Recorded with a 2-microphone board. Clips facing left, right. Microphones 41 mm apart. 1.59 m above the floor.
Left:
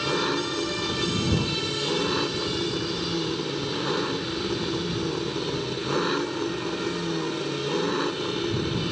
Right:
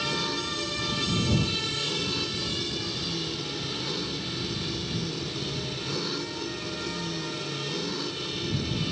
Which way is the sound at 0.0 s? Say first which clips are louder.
Left 4 dB; 50° left (ahead or behind).